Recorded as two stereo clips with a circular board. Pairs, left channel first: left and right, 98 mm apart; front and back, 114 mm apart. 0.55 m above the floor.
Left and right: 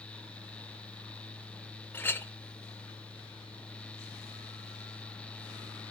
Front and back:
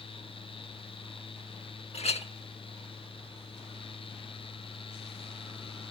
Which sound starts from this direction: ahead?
A clink, at 1.9 s.